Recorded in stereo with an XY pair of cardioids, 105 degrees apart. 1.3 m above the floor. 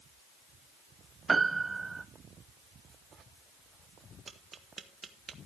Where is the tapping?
35° right, 1.6 m.